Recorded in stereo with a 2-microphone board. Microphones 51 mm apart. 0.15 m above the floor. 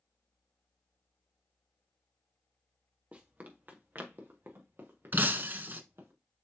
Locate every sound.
3.1 s running footsteps: 25° right (ahead or behind), 2.0 m; by 6.1 s 55° right (ahead or behind), 4 m
5.1 s breaking glass: 40° right (ahead or behind), 0.7 m